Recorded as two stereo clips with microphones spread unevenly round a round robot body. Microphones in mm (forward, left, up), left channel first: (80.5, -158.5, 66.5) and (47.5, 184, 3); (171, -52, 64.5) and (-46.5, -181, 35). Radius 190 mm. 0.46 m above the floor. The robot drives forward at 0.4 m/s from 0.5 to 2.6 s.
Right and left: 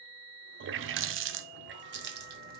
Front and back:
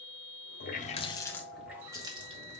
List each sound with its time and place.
0.6 s a running tap: 75° left, 0.6 m; by 2.6 s 150° left, 0.9 m